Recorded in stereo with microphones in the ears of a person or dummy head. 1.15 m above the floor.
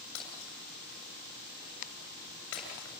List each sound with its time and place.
0.1 s breaking glass: 70° left (ahead or behind), 7.5 m